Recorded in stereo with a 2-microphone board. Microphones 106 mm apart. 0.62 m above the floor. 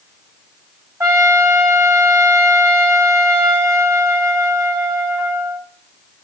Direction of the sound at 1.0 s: 25° right (ahead or behind).